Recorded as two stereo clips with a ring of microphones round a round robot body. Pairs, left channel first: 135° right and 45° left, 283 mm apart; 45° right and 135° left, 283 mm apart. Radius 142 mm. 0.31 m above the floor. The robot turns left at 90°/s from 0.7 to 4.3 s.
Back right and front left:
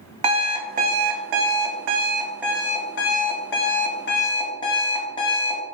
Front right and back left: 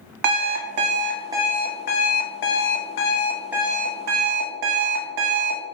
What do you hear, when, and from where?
0.2 s an alarm clock: 115° left, 0.7 m; by 5.6 s 150° left, 0.7 m